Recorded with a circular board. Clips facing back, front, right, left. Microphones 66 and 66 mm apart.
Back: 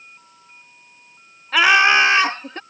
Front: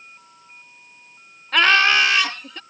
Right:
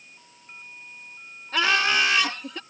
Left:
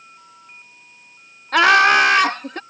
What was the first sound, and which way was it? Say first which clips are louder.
Laughter: back 2 dB, left 10 dB; 95° left.